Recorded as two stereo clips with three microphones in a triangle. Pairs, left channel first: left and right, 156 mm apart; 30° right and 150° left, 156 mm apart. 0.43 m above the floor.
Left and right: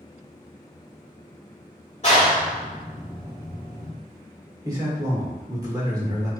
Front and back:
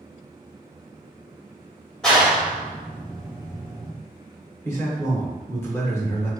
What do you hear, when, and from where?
2.0 s a clap: 55° left, 1.6 m
4.7 s a man speaking: 75° right, 1.4 m